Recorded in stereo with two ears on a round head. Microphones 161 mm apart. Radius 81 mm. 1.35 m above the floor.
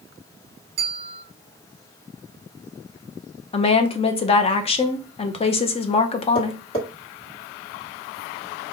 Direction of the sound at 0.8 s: 35° right (ahead or behind).